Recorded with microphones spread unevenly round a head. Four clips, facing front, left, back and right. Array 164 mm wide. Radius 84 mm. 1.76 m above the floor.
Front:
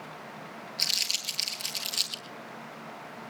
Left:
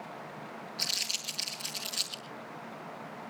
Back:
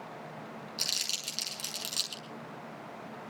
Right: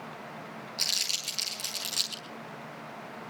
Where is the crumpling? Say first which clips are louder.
Right 1 dB, front 3 dB; 170° right, 5.5 m.